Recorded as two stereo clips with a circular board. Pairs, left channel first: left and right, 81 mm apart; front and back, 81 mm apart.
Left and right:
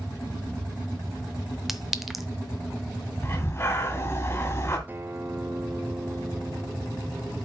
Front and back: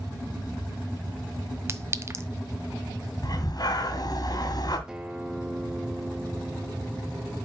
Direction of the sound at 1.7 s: 175° right.